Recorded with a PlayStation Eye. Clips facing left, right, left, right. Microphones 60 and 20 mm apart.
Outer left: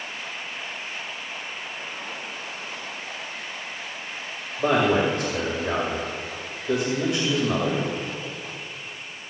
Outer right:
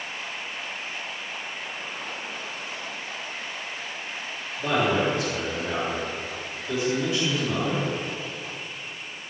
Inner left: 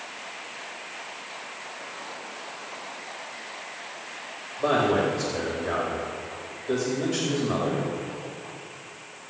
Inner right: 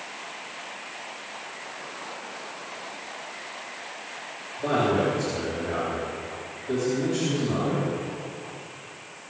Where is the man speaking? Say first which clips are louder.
Outer left 3 dB, inner left 1 dB; 70° left (ahead or behind), 3.5 m.